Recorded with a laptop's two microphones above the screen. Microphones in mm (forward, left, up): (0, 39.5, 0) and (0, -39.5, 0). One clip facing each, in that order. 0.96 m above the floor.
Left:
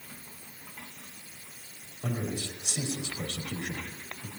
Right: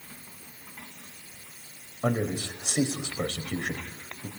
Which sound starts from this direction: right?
A man speaking, at 2.0 s.